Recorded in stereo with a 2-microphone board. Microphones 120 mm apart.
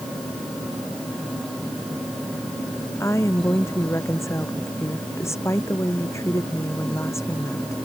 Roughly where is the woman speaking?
Left.